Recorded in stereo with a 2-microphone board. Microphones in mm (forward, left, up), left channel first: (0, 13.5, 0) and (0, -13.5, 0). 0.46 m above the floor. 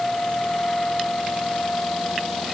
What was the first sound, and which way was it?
Only background noise.